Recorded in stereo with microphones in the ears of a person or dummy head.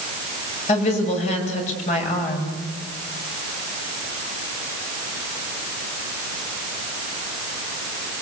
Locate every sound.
0.7 s a woman speaking: 40° left (ahead or behind), 7.5 m